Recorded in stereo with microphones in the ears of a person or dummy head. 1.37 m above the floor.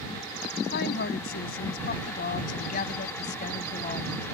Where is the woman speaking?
55° left (ahead or behind); by 4.3 s 35° left (ahead or behind).